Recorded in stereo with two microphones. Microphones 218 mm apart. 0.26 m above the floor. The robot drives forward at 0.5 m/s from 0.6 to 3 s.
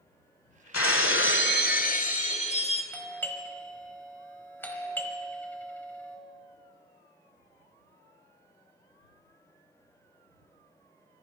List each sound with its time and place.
0.7 s breaking glass: 85° left, 0.6 m; by 2.8 s 30° left (ahead or behind), 1.2 m
2.9 s a doorbell: 10° left (ahead or behind), 1.3 m